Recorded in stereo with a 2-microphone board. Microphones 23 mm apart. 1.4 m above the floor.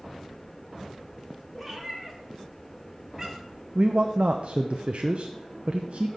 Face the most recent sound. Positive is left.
turn(degrees=-60)  # may be behind; listen again after turning